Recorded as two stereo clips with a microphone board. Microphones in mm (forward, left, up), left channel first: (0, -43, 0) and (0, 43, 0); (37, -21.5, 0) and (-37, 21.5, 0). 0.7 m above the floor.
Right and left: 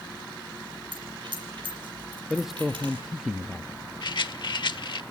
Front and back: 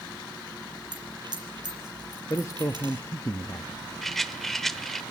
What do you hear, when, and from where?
0.9 s a dropped coin: 115° left, 5.5 m
2.3 s a man speaking: 5° left, 0.7 m
4.0 s a rattle: 120° right, 0.9 m